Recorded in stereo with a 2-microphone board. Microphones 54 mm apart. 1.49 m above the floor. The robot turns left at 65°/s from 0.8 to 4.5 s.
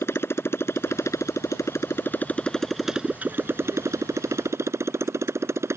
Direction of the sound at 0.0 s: 125° left.